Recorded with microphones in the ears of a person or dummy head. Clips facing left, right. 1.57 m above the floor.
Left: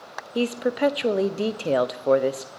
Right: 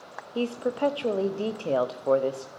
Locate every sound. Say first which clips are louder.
0.3 s a woman speaking: left 4 dB; 25° left (ahead or behind), 0.6 m